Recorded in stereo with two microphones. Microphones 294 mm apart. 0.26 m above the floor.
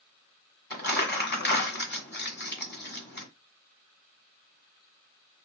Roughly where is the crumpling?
Left.